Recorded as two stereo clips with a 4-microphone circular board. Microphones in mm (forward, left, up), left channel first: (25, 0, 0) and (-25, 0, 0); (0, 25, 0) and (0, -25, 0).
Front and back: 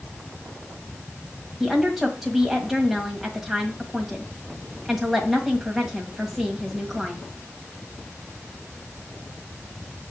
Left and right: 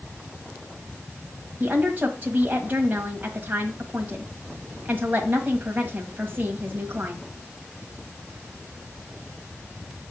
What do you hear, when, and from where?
1.6 s a woman speaking: 100° right, 1.5 m